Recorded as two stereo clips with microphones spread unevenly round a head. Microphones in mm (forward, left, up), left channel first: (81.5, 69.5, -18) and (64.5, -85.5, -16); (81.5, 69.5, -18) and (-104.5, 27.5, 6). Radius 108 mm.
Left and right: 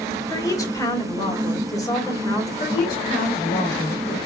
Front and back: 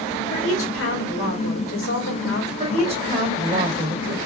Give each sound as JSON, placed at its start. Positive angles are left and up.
{"t": 0.3, "sound": "a woman speaking", "azimuth_deg": 15, "distance_m": 2.0}
{"t": 2.6, "sound": "a woman speaking", "azimuth_deg": 145, "distance_m": 1.9}